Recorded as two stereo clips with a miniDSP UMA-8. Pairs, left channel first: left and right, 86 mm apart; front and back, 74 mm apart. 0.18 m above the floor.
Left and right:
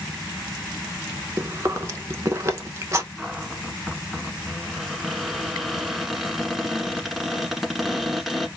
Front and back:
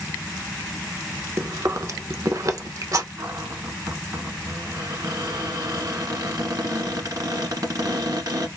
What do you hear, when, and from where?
1.4 s chewing: 140° right, 0.6 m
3.2 s a cupboard door: 175° right, 0.9 m